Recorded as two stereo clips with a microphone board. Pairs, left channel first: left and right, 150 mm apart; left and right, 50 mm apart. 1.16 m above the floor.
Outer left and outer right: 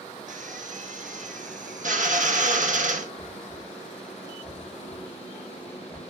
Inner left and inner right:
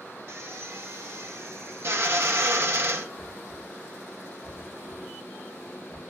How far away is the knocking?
About 5.5 m.